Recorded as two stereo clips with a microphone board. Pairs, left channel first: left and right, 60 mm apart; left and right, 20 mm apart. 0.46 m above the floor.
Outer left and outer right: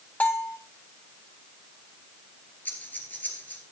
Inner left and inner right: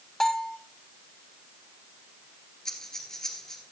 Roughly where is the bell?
Left.